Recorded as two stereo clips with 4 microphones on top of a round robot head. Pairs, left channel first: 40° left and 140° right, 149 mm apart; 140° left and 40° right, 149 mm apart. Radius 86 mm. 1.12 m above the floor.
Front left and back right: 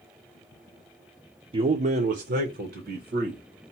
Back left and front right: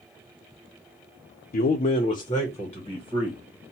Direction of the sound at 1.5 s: 165° left.